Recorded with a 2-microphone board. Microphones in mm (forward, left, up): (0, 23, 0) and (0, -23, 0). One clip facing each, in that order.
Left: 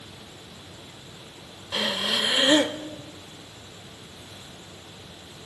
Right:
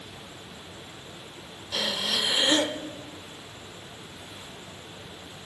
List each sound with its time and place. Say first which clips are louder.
1.7 s breathing: left 2 dB; 25° left (ahead or behind), 0.5 m